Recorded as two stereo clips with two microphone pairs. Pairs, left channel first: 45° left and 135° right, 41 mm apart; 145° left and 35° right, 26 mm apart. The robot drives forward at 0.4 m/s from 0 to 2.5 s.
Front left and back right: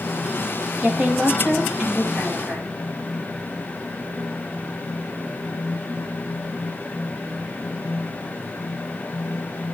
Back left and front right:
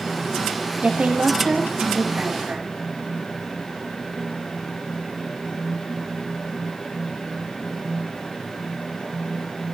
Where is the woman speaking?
65° right, 6.5 m; by 2.8 s 70° right, 6 m.